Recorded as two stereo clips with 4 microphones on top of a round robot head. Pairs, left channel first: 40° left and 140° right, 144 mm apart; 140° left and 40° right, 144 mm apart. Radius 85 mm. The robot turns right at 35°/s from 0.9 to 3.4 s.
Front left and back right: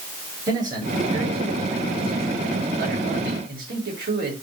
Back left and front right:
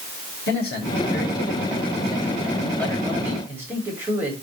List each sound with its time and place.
0.5 s a man speaking: 155° left, 10 m; by 4.3 s 115° right, 10 m